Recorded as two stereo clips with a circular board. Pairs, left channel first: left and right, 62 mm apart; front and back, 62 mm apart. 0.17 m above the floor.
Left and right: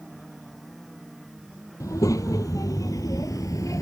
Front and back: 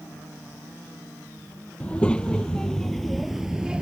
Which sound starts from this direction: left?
A child speaking, at 1.8 s.